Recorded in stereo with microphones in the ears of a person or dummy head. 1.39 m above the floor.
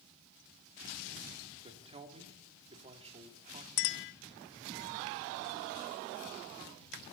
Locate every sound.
1.6 s a man speaking: 35° right (ahead or behind), 3 m
3.8 s a clink: 55° left (ahead or behind), 1.1 m